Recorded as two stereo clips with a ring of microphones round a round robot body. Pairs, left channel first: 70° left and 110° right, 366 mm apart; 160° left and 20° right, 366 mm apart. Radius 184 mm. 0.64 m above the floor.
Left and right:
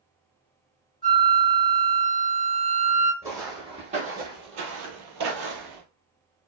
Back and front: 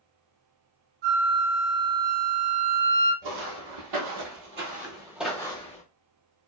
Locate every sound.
1.0 s a flute: 5° right, 1.4 m
3.2 s footsteps: 30° right, 1.3 m; by 5.8 s 140° right, 0.9 m